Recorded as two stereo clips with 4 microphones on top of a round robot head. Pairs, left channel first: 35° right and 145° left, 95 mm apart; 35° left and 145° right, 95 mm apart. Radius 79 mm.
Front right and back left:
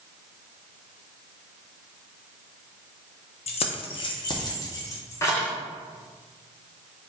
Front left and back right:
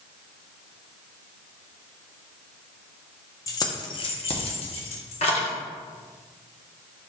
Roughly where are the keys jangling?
Ahead right.